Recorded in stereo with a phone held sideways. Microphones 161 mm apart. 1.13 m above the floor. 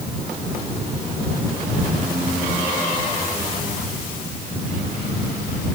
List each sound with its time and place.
Only background noise.